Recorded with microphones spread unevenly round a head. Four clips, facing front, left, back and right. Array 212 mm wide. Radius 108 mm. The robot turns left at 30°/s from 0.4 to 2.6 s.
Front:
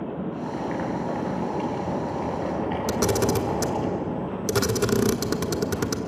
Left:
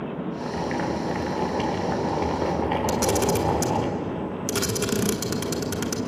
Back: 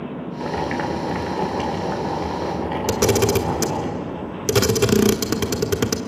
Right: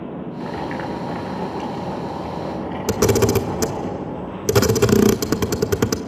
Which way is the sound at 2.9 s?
110° right.